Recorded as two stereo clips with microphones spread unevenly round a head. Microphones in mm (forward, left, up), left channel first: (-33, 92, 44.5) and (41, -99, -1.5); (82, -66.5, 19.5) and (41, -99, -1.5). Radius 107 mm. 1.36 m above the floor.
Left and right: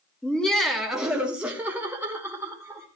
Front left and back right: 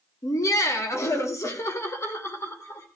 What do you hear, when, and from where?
0.2 s laughter: 25° left, 2.5 m; by 2.9 s 10° left, 5.5 m